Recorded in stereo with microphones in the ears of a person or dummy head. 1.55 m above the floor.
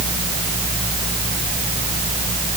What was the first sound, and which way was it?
Only background noise.